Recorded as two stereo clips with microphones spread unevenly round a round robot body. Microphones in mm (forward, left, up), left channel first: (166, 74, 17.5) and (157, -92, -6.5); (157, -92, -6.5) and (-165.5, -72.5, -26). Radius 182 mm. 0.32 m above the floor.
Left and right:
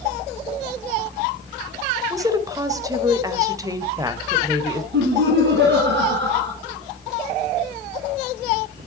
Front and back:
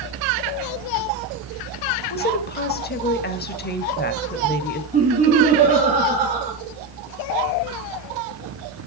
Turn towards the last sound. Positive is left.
turn(degrees=-115)